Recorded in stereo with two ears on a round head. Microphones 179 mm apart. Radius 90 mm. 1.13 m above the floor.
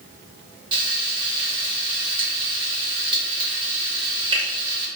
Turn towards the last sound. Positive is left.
turn(degrees=-25)  # may be behind; listen again after turning